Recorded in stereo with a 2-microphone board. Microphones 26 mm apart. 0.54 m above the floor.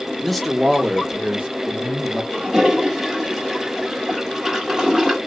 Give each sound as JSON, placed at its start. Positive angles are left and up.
{"t": 0.2, "sound": "a man speaking", "side_deg": 15, "distance_m": 0.7}
{"t": 2.3, "sound": "a toilet flushing", "side_deg": -20, "distance_m": 1.5}